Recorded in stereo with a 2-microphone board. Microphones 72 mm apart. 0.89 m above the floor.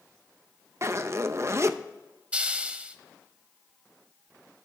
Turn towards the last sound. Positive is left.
turn(degrees=-15)  # may be behind; listen again after turning